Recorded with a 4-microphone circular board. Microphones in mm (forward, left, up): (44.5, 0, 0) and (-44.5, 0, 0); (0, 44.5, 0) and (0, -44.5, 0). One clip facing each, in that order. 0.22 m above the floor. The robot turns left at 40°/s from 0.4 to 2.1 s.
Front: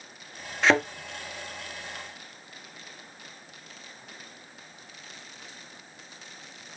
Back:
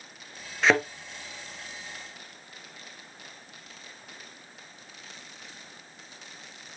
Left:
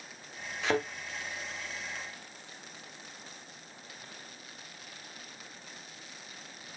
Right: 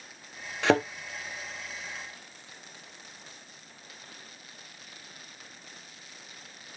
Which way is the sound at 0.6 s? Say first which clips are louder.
Front 1 dB, right 7 dB; 90° right.